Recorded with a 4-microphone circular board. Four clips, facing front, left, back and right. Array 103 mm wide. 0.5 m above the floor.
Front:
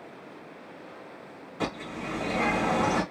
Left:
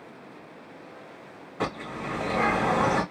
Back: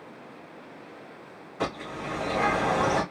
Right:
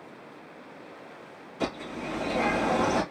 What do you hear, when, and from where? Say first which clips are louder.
1.6 s a bird: left 1 dB, back 1 dB; 100° left, 2.5 m